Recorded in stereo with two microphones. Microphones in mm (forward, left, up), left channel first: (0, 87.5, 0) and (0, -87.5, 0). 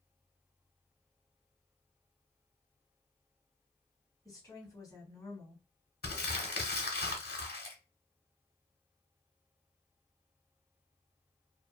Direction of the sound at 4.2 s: 20° left (ahead or behind).